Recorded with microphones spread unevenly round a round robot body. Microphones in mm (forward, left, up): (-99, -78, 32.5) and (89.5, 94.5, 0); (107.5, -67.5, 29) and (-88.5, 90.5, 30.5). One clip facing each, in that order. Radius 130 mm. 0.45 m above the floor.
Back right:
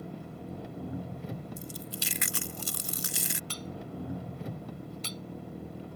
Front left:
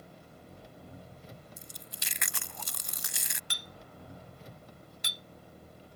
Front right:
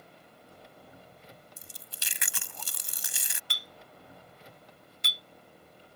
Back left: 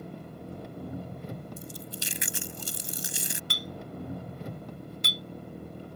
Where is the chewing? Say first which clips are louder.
Back right 12 dB, back left 14 dB; 75° right.